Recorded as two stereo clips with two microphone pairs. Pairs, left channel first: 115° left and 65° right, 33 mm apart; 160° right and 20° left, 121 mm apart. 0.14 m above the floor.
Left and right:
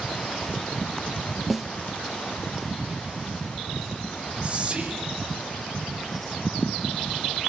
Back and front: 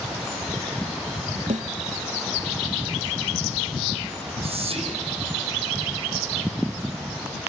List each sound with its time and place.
1.5 s a snare drum: 25° left, 0.8 m
4.4 s whispering: 10° right, 3.5 m